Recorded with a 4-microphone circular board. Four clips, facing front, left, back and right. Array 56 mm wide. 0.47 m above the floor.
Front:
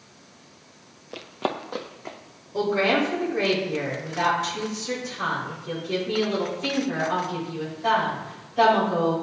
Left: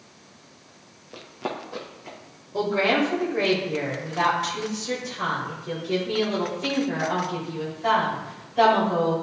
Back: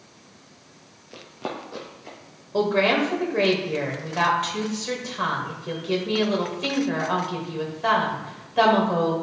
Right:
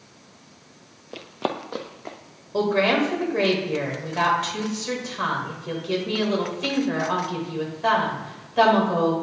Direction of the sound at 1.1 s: 45° right.